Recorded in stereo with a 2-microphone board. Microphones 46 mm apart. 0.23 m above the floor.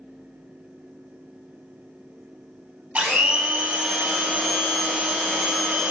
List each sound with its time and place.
3.0 s a blender: 30° right (ahead or behind), 0.9 m